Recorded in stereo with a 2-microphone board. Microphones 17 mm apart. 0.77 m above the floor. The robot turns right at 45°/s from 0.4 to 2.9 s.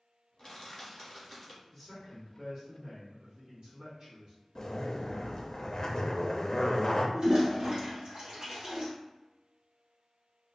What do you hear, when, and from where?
0.4 s crushing: 130° left, 1.1 m; by 1.6 s 175° right, 1.1 m
1.7 s a man speaking: straight behind, 1.3 m; by 4.3 s 130° right, 1.3 m
4.5 s a zipper: 35° left (ahead or behind), 0.6 m
7.1 s a toilet flushing: 55° right (ahead or behind), 1.7 m